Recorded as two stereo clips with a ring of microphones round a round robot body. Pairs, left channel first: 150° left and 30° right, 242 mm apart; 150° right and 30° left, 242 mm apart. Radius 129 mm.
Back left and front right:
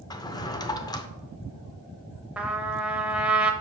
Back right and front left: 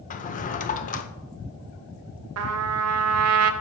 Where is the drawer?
150° right, 0.6 m.